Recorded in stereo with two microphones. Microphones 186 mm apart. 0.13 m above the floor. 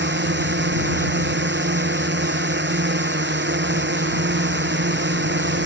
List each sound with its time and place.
0.0 s a drone: 75° right (ahead or behind)